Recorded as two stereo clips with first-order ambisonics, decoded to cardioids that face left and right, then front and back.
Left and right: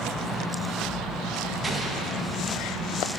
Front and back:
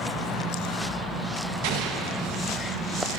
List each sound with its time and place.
1.6 s an explosion: 165° right, 0.8 m